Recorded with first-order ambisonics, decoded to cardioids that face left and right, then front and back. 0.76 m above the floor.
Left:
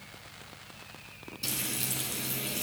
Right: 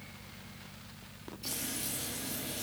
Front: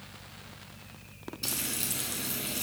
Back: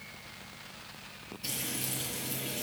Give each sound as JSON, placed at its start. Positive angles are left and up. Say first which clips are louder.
{"t": 1.4, "sound": "frying", "louder": "left 5 dB, front 2 dB", "azimuth_deg": 40, "distance_m": 3.0}